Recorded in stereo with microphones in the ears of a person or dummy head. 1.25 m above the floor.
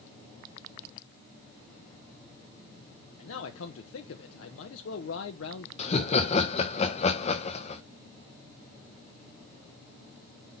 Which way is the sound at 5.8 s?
35° left (ahead or behind).